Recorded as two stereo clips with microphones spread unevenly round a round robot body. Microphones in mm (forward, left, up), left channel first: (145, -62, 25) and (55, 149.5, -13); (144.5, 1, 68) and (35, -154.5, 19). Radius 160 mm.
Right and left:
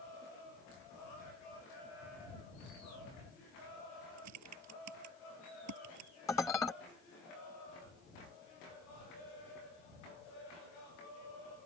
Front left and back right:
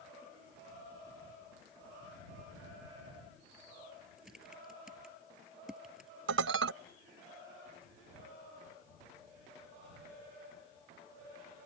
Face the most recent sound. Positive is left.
turn(degrees=-150)